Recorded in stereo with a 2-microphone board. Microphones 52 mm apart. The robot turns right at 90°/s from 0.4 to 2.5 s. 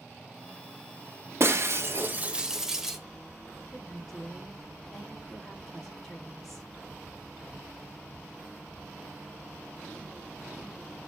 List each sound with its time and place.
1.4 s breaking glass: 110° right, 1.0 m; by 3.0 s 10° right, 1.0 m
3.7 s a woman speaking: 5° left (ahead or behind), 4.5 m